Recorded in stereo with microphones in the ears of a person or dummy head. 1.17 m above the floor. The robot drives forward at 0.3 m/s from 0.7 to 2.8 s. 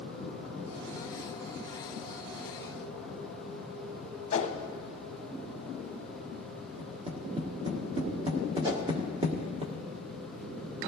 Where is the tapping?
30° right (ahead or behind), 1.6 m.